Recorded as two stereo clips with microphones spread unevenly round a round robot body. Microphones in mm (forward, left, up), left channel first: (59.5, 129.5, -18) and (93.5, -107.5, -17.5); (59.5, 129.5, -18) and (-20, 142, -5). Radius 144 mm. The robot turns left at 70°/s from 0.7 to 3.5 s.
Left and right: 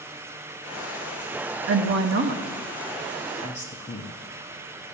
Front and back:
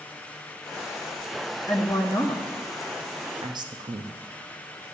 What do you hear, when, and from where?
1.7 s a woman speaking: 75° right, 0.6 m; by 4.2 s 155° left, 0.6 m